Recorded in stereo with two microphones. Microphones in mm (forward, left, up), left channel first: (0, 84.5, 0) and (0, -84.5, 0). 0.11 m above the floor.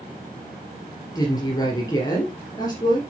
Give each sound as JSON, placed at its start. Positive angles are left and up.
{"t": 1.1, "sound": "a woman speaking", "side_deg": 25, "distance_m": 2.5}